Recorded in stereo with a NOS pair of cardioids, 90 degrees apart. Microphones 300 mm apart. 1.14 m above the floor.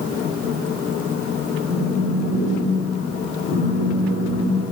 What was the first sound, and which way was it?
A phone buzzing, 30° left.